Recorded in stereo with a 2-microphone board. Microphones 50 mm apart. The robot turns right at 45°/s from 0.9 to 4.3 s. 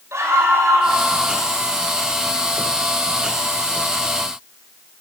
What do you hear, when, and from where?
0.1 s a scream: 75° right (ahead or behind), 6.5 m; by 1.0 s 80° right, 6.5 m